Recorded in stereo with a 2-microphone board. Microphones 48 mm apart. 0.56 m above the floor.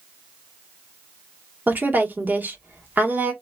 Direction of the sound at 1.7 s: 40° right (ahead or behind).